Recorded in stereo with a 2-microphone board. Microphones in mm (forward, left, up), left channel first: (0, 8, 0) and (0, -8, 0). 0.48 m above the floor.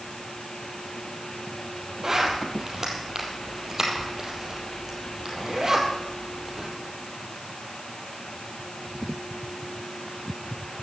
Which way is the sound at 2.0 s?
35° right (ahead or behind).